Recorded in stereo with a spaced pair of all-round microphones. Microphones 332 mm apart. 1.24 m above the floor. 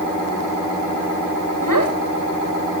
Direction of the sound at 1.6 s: 75° right (ahead or behind).